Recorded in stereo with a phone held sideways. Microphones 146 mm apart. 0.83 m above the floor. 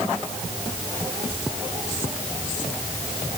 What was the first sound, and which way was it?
Only background noise.